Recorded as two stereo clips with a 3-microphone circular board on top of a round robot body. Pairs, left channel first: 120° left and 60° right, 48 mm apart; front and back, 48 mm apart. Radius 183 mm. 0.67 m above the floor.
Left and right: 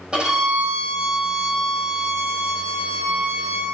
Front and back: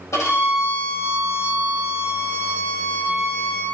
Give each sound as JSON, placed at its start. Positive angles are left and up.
{"t": 0.1, "sound": "a violin", "azimuth_deg": 15, "distance_m": 5.5}